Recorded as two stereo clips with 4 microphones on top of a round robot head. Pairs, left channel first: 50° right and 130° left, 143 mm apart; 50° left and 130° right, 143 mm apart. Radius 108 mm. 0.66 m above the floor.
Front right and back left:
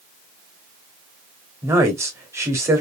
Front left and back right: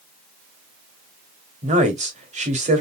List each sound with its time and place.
1.6 s a woman speaking: 160° right, 2 m